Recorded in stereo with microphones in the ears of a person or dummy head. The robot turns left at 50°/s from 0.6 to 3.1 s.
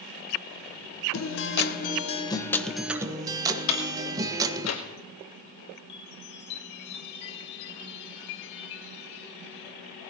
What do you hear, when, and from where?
1.1 s a guitar: 85° left, 1.2 m; by 4.7 s 15° right, 1.2 m
3.7 s a door slam: 85° left, 2.5 m
5.9 s a chime: 70° left (ahead or behind), 1.9 m